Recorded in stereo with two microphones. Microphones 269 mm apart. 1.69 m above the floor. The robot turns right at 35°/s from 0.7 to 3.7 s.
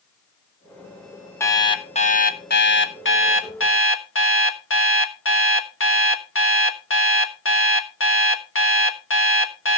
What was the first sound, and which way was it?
An alarm clock, 10° left.